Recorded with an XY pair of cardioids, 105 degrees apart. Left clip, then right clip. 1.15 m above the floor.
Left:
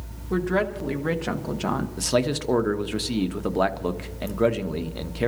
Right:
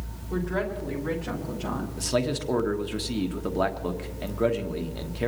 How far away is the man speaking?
About 1.2 m.